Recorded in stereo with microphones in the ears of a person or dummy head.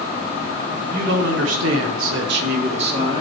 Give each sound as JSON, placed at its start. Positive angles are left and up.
{"t": 0.9, "sound": "a man speaking", "side_deg": -55, "distance_m": 1.4}